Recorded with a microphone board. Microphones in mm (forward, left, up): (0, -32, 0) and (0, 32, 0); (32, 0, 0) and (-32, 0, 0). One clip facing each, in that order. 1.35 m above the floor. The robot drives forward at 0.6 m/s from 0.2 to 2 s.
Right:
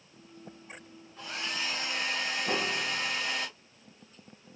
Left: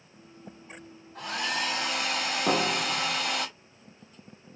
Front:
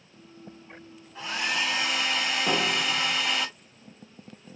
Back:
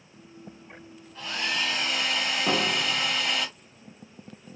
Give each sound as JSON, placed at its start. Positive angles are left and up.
{"t": 1.1, "sound": "a hair dryer", "azimuth_deg": 70, "distance_m": 1.9}
{"t": 2.5, "sound": "a piano", "azimuth_deg": 95, "distance_m": 1.2}